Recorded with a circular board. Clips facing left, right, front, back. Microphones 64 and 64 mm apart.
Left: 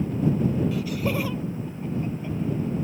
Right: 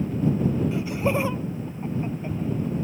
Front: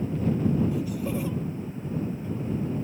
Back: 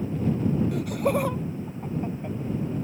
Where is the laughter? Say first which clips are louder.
Right 2 dB, back 4 dB; 155° right; by 2.4 s 150° right.